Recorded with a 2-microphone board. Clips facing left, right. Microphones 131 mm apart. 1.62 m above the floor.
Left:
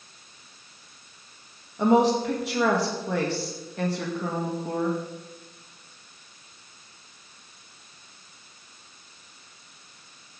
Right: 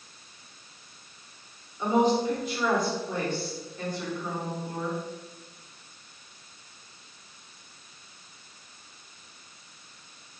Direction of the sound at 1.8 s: 70° left (ahead or behind).